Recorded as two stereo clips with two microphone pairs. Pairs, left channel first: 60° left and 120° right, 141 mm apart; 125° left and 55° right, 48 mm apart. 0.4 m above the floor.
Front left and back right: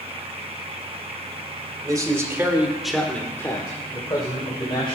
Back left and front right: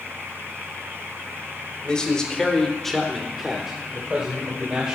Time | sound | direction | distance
1.8 | a man speaking | 175° right | 2 m